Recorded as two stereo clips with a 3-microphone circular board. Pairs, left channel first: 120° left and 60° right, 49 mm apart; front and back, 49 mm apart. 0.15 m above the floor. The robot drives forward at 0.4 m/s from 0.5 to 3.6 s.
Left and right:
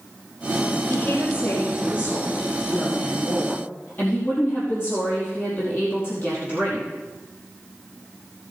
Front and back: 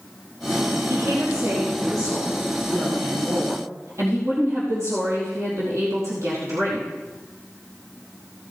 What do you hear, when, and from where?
0.9 s a woman speaking: 160° left, 3.5 m; by 6.9 s 165° left, 4.5 m